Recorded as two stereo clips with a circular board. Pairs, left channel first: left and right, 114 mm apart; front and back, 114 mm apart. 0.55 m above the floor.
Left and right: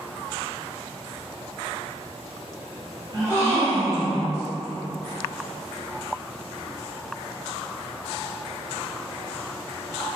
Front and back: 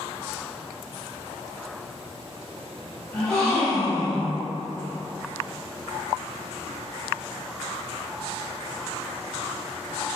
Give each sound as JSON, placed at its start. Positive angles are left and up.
{"t": 3.1, "sound": "a gasp", "azimuth_deg": -80, "distance_m": 1.3}